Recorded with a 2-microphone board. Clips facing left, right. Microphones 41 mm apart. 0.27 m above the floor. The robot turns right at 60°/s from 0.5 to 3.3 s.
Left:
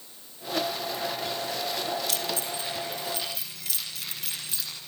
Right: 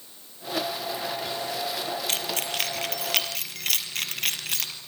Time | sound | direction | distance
2.1 | keys jangling | 45° right (ahead or behind) | 4 m